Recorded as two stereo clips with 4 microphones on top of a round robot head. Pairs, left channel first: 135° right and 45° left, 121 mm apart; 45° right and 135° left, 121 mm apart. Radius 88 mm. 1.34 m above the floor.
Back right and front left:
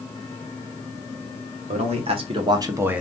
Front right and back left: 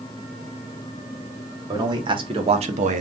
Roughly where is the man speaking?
Left.